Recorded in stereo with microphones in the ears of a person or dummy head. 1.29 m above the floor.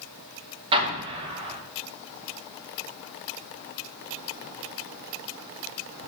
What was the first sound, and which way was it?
An explosion, 20° right (ahead or behind).